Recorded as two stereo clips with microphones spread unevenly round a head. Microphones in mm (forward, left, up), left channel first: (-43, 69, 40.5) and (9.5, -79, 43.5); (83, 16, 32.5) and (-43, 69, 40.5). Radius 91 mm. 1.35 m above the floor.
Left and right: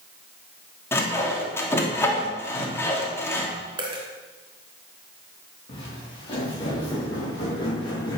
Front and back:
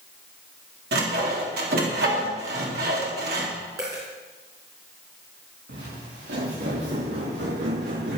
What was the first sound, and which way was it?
Sawing, 175° right.